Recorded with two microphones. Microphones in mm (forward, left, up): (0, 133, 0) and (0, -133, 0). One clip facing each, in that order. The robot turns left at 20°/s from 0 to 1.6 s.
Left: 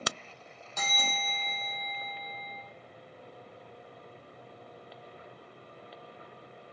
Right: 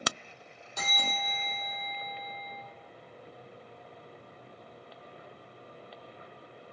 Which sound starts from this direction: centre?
A bell, at 0.8 s.